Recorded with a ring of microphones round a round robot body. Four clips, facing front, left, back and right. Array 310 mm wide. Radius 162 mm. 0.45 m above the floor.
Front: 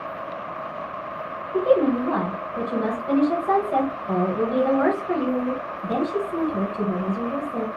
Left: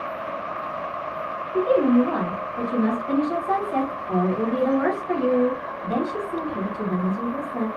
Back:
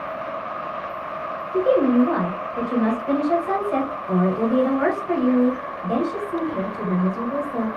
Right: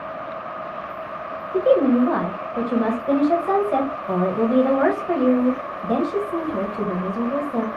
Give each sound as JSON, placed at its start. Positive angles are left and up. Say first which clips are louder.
{"t": 1.5, "sound": "a woman speaking", "louder": "right 2 dB, back 2 dB", "azimuth_deg": -95, "distance_m": 2.0}